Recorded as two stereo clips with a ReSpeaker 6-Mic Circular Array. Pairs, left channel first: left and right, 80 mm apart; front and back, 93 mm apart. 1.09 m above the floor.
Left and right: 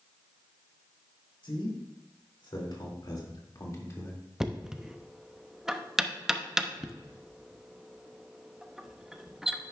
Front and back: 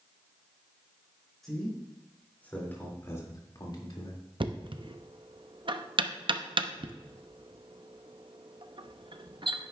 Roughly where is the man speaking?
Left.